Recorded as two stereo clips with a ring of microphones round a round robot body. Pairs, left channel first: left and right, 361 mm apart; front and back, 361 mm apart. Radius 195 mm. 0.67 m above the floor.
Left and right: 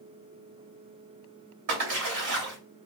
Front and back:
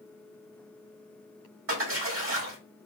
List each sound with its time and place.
1.7 s a splash: 125° right, 1.6 m